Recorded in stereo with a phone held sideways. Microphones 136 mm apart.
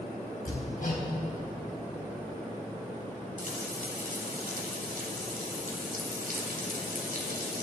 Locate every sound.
0.5 s hammering: 70° left (ahead or behind), 3.5 m
3.4 s frying: 85° right, 2.5 m